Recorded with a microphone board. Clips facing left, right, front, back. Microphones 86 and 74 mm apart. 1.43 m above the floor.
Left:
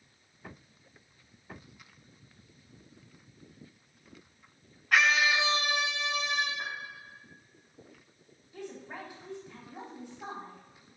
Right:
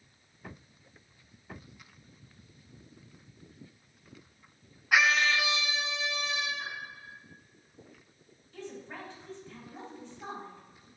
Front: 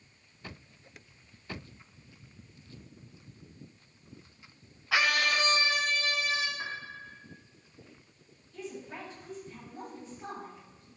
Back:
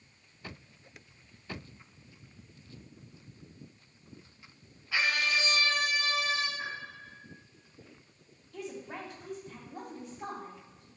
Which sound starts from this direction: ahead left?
A piano, at 6.6 s.